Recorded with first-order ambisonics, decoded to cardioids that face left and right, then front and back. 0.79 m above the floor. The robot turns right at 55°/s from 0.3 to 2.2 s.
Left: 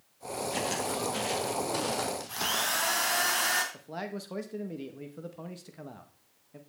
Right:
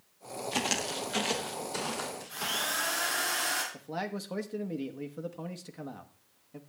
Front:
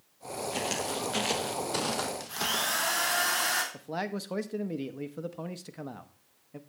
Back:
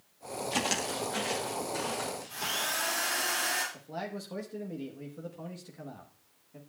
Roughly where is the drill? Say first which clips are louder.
Left 1 dB, front 3 dB; ahead left.